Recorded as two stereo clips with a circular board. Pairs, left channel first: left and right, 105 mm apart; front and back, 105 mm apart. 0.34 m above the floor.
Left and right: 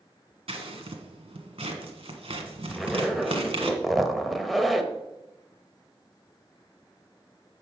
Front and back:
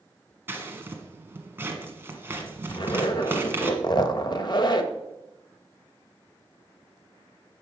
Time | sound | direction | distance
0.5 | scissors | 110° right | 1.5 m
2.7 | a zipper | straight ahead | 0.8 m